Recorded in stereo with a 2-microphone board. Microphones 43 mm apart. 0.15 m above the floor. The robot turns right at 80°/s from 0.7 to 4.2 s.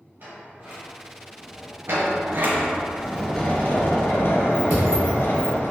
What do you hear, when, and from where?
0.2 s a sliding door: 50° right, 1.4 m; by 1.8 s 35° left, 1.4 m
1.9 s a sliding door: 100° right, 0.8 m; by 5.7 s 85° left, 0.8 m
4.7 s a thud: 40° right (ahead or behind), 1.4 m